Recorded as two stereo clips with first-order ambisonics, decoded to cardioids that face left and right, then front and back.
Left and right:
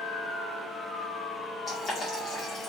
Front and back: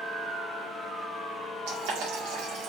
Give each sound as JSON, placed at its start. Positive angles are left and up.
{"t": 1.7, "sound": "boiling", "azimuth_deg": 155, "distance_m": 1.8}